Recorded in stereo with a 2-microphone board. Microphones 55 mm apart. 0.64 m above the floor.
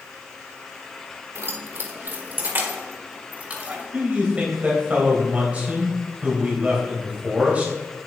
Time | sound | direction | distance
1.4 | keys jangling | 55° right (ahead or behind) | 1.3 m
3.9 | a man speaking | 25° right (ahead or behind) | 3.5 m